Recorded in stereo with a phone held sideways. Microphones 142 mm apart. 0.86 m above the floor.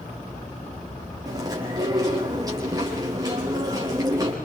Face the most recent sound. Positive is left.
turn(degrees=-25)  # may be behind; listen again after turning